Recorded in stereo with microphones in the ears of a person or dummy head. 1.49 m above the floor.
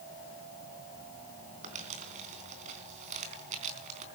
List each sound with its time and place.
1.6 s crumpling: 45° right (ahead or behind), 4 m